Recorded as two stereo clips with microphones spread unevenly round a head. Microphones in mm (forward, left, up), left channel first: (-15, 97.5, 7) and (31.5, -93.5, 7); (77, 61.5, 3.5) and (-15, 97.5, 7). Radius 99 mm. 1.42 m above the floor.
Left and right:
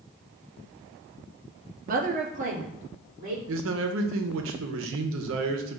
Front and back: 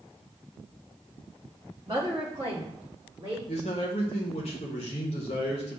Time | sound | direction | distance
1.9 | a woman speaking | 130° right | 0.6 m
3.5 | a man speaking | 65° right | 0.6 m